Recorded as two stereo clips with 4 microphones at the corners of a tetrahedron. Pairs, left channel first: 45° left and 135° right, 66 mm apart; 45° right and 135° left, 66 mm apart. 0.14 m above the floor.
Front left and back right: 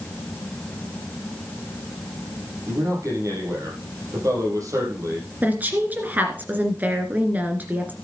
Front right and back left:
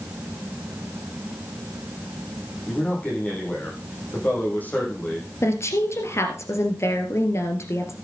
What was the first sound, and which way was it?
A man speaking, 105° right.